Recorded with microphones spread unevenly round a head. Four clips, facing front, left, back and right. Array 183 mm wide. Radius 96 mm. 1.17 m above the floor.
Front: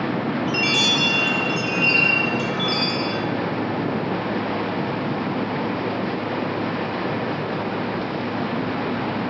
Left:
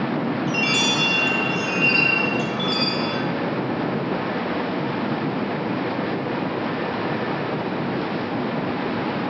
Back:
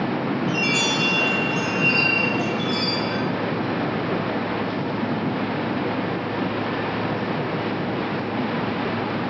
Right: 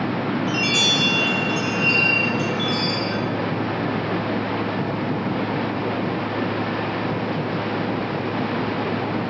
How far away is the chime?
About 2.0 m.